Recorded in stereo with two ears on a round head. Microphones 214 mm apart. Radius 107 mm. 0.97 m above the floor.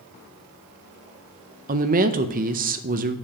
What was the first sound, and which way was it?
A woman speaking, 35° right (ahead or behind).